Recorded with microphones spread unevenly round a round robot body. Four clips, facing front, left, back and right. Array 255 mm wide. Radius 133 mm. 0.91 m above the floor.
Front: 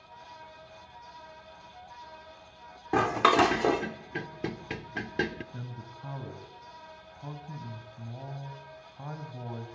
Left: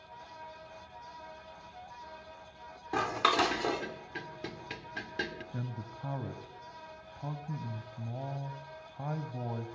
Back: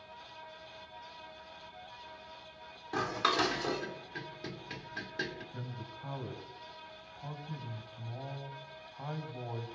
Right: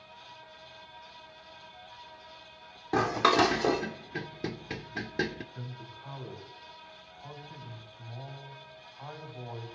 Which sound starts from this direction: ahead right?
Dishes clattering, at 2.9 s.